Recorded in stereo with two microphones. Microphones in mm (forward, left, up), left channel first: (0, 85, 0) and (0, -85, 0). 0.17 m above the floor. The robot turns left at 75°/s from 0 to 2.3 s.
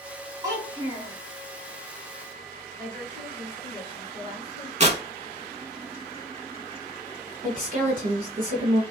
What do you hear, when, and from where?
0.4 s a child speaking: 35° right, 1.3 m; by 1.1 s 90° right, 1.3 m
2.8 s a woman speaking: 25° right (ahead or behind), 1.8 m
4.8 s tearing paper: 45° right (ahead or behind), 0.8 m
7.4 s a woman speaking: 45° right (ahead or behind), 1.9 m